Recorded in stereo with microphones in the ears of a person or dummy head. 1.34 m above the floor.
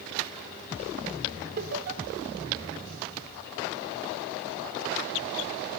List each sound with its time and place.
1.6 s laughter: 55° right (ahead or behind), 3 m